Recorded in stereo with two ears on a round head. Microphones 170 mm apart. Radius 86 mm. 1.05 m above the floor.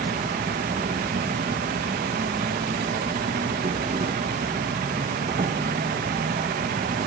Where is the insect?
35° right (ahead or behind), 1.4 m.